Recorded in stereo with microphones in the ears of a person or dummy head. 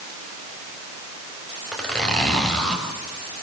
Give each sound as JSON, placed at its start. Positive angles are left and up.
{"t": 1.7, "sound": "a zipper", "side_deg": 5, "distance_m": 5.5}